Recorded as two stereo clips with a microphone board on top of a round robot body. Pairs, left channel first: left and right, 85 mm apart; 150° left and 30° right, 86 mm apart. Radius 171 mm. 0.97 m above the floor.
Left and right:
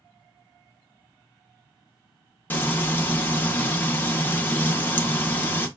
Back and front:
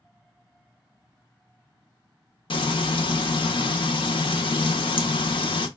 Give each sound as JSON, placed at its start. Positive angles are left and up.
{"t": 2.5, "sound": "frying", "azimuth_deg": 155, "distance_m": 0.9}